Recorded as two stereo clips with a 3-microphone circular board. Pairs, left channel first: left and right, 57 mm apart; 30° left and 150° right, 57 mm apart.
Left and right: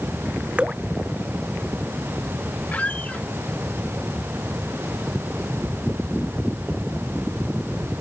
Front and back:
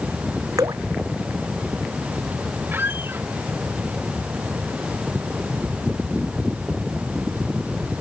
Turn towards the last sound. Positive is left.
turn(degrees=155)